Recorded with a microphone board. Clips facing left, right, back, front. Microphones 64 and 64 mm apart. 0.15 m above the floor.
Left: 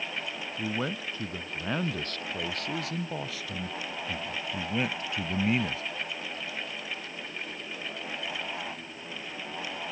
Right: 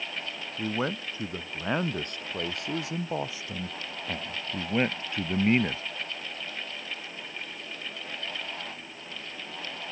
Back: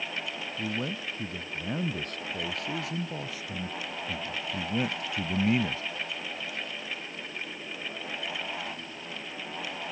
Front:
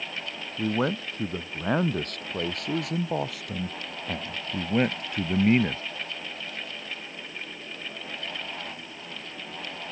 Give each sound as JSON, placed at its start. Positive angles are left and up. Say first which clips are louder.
{"t": 0.6, "sound": "a man speaking", "louder": "right 3 dB, front 8 dB", "azimuth_deg": -20}